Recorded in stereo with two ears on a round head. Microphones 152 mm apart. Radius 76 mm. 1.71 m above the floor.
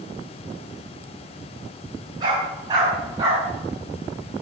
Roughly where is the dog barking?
Right.